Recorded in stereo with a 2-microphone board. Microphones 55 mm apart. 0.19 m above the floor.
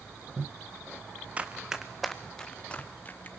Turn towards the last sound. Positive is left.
turn(degrees=35)  # may be behind; listen again after turning